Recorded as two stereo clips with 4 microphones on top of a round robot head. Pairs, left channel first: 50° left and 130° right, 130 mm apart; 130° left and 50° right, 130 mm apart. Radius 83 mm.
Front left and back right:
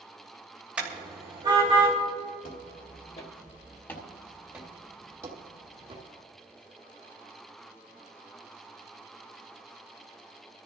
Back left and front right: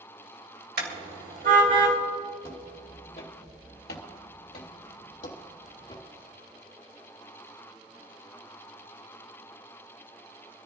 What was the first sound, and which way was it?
A car horn, 50° right.